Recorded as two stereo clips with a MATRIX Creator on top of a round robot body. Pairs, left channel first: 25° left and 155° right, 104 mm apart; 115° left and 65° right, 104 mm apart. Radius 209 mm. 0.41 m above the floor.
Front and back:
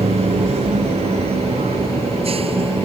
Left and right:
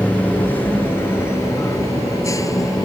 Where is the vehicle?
170° right; by 2.9 s 170° left.